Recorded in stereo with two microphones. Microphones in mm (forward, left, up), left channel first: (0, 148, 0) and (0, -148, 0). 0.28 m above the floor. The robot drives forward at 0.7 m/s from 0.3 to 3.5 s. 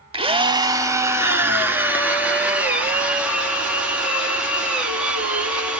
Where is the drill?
20° right (ahead or behind), 0.6 m; by 5.8 s 5° right (ahead or behind), 2.5 m.